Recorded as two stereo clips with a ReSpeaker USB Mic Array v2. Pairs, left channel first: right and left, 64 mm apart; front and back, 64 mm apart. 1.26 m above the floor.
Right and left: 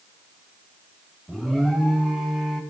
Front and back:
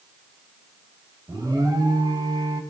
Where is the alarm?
Straight behind, 1.6 m.